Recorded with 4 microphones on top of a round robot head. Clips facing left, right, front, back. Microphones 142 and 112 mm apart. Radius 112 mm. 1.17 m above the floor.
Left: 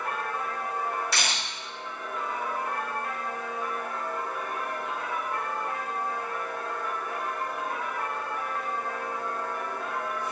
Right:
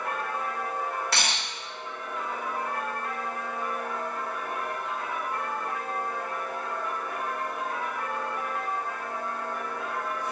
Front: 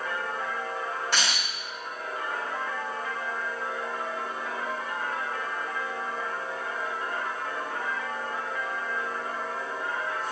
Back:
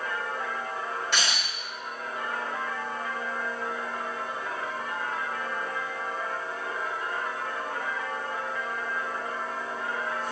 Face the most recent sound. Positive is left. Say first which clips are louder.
# right 1 dB, even
turn(degrees=-60)